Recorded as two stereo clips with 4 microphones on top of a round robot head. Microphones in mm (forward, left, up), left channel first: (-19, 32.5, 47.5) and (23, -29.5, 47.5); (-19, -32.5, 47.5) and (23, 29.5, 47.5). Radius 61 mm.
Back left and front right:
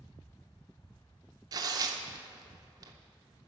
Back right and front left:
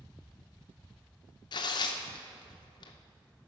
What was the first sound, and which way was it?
Tearing paper, 95° right.